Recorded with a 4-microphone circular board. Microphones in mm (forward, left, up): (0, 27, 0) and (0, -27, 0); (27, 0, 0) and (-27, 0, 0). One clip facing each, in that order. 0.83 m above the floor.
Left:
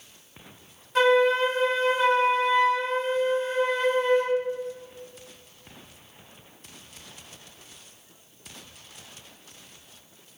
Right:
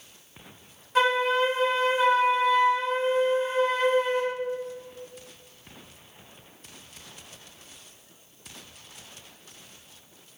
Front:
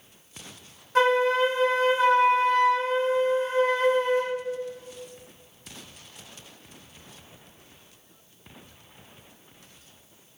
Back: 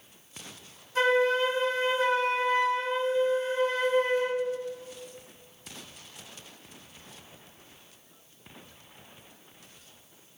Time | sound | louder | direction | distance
0.9 | a flute | left 3 dB, front 3 dB | 5° right | 1.0 m